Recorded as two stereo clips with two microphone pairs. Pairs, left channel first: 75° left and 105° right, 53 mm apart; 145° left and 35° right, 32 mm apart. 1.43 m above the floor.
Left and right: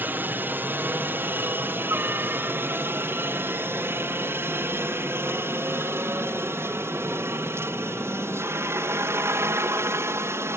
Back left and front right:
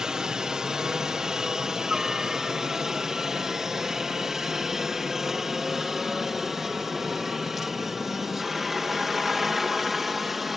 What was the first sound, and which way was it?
A helicopter, 90° right.